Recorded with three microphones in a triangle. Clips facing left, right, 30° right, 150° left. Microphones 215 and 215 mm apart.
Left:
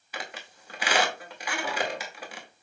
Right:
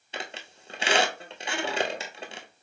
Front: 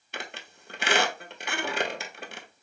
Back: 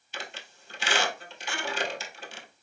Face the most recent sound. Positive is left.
turn(degrees=-30)